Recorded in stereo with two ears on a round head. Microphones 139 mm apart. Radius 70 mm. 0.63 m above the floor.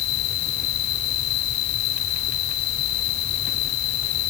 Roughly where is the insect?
Left.